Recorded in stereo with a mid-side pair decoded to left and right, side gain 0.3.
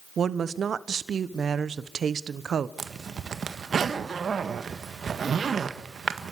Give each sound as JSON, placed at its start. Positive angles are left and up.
{"t": 0.2, "sound": "a woman speaking", "azimuth_deg": -70, "distance_m": 1.1}
{"t": 2.8, "sound": "a zipper", "azimuth_deg": -65, "distance_m": 1.6}